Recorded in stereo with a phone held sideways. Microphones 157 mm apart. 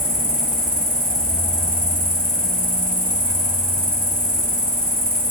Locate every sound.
0.0 s an insect: 65° right (ahead or behind), 3 m